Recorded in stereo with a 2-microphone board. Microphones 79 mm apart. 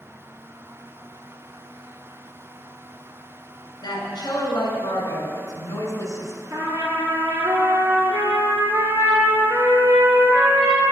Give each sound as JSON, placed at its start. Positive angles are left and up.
{"t": 3.8, "sound": "a woman speaking", "side_deg": 60, "distance_m": 3.0}
{"t": 6.5, "sound": "a trumpet", "side_deg": -45, "distance_m": 2.0}